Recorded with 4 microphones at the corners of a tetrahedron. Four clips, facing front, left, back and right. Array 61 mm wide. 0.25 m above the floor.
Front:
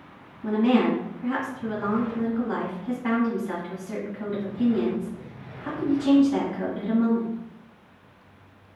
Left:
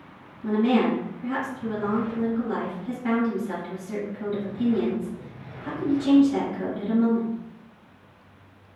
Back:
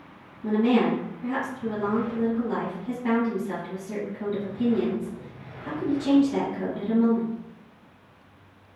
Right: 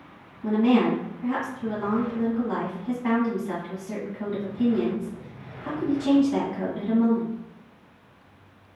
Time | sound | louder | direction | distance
0.4 | a woman speaking | right 1 dB, front 1 dB | 45° right | 1.6 m